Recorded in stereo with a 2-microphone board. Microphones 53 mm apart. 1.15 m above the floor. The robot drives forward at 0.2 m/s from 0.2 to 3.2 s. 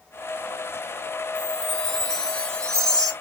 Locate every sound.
1.4 s a chime: 15° left (ahead or behind), 1.3 m